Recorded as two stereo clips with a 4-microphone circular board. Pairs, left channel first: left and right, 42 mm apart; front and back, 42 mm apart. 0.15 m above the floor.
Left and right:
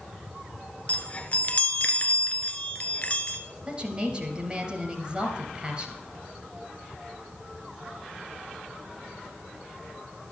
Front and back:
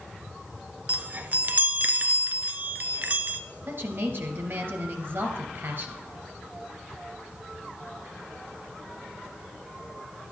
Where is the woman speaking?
155° right, 2.5 m.